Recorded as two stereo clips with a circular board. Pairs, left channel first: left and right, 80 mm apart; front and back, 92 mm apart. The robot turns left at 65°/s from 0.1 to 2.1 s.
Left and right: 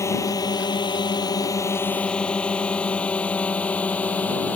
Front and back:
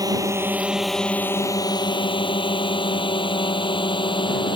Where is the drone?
135° left; by 4.6 s 20° left.